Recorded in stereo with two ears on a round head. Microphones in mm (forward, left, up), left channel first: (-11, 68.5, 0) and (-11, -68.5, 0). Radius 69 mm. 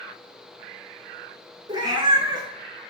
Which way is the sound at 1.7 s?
30° right (ahead or behind).